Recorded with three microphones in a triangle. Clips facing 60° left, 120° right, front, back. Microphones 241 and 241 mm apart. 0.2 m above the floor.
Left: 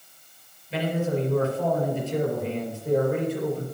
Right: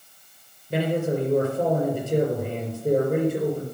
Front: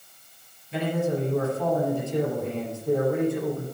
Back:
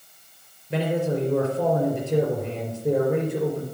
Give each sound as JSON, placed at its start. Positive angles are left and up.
{"t": 0.7, "sound": "a man speaking", "azimuth_deg": -160, "distance_m": 4.5}